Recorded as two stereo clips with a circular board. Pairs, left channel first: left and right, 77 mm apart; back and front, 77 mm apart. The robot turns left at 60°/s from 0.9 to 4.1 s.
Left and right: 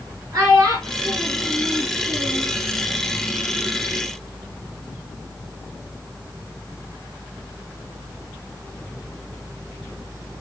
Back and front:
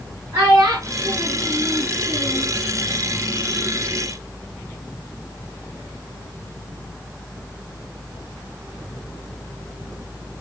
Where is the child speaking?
50° right, 4.5 m; by 2.5 s 145° right, 4.5 m.